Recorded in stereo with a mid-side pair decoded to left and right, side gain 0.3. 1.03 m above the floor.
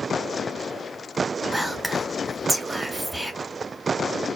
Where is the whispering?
5° right, 1.1 m.